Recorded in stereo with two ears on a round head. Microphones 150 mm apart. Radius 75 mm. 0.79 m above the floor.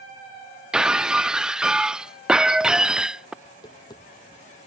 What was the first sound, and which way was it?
Breaking glass, 5° right (ahead or behind).